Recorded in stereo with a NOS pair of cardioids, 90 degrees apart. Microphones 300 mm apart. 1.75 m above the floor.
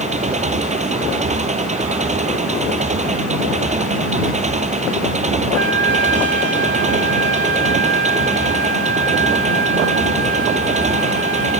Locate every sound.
0.0 s an engine running: 25° right
5.5 s a trumpet: 40° right